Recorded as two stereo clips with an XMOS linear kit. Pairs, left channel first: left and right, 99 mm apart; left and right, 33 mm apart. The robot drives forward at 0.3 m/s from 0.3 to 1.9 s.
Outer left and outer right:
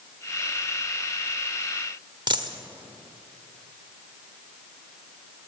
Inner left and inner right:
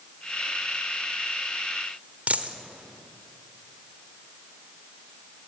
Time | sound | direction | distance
2.3 | a dropped coin | 50° right (ahead or behind) | 1.2 m